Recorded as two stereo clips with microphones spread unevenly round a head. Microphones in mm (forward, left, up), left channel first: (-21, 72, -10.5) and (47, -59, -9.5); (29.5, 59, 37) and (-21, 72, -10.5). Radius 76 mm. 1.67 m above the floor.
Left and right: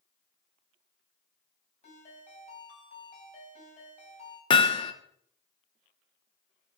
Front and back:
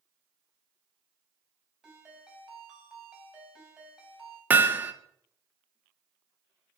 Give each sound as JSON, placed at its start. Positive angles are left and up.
{"t": 1.8, "sound": "a ringtone", "azimuth_deg": 75, "distance_m": 5.0}
{"t": 4.5, "sound": "hammering", "azimuth_deg": 70, "distance_m": 0.9}